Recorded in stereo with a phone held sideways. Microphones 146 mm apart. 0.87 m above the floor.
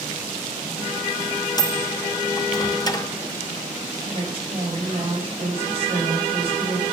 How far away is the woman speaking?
About 4 m.